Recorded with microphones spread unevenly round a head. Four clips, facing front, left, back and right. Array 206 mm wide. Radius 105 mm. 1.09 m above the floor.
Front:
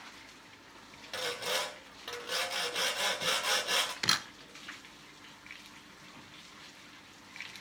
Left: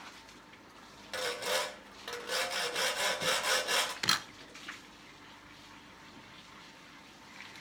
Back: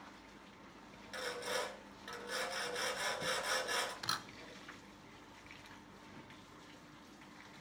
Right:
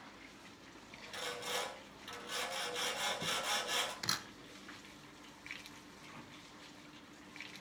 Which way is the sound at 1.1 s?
45° left.